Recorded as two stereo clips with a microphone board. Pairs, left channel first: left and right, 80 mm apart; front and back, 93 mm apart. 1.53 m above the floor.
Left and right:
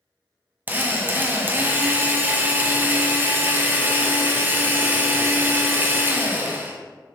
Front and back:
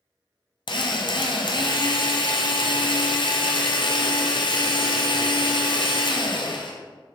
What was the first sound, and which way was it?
A drill, 25° right.